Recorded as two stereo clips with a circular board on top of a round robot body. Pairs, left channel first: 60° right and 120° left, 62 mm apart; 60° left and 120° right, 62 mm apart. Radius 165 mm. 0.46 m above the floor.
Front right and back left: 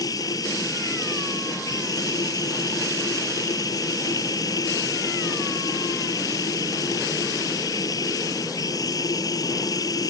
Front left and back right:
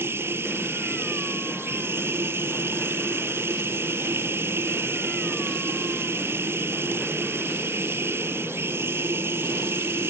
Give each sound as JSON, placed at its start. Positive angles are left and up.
{"t": 0.0, "sound": "running water", "azimuth_deg": -70}